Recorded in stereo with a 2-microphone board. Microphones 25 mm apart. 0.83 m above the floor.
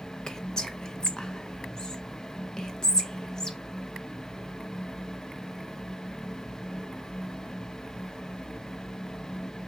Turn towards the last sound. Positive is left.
turn(degrees=25)  # may be behind; listen again after turning